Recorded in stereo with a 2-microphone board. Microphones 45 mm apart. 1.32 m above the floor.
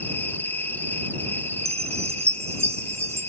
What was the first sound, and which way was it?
An insect, 45° left (ahead or behind).